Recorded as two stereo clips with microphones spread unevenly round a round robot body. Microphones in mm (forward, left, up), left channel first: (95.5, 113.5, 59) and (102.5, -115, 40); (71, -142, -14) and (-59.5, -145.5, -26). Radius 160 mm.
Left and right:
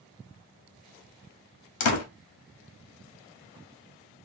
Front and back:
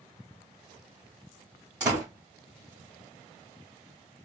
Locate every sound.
1.8 s a door slam: 100° left, 0.6 m